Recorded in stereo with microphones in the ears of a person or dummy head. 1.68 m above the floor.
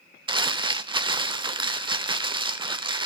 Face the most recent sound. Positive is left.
turn(degrees=-20)  # may be behind; listen again after turning